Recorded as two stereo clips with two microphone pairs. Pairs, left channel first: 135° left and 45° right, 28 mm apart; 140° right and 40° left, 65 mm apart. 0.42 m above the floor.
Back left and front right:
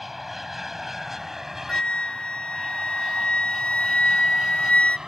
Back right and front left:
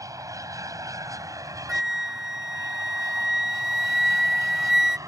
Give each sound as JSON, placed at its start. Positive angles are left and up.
{"t": 0.0, "sound": "an aircraft", "azimuth_deg": 35}
{"t": 1.7, "sound": "a flute", "azimuth_deg": 125}